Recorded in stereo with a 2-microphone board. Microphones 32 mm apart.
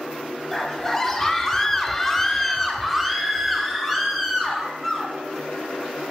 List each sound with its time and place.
0.5 s a scream: 10° left (ahead or behind), 1.6 m; by 5.1 s 5° right (ahead or behind), 2.5 m